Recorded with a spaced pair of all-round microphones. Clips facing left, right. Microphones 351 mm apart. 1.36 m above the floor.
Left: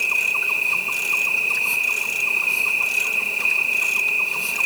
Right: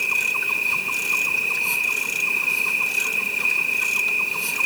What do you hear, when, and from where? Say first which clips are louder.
0.0 s an insect: right 1 dB; 25° right (ahead or behind), 1.1 m